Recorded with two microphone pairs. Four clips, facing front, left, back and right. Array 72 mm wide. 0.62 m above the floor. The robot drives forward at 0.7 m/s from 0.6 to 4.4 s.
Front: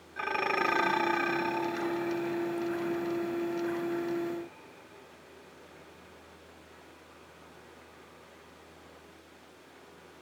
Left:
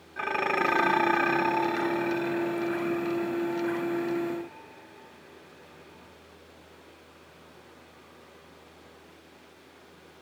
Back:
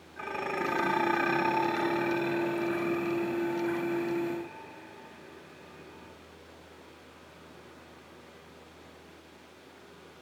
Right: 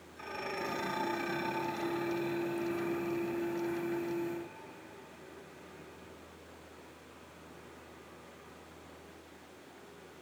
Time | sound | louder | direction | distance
0.2 | dishes clattering | left 12 dB, front 3 dB | 70° left | 0.9 m